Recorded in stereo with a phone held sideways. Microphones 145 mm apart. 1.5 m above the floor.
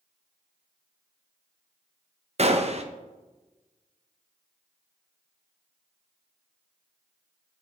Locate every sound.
2.4 s a gunshot: 45° right (ahead or behind), 0.9 m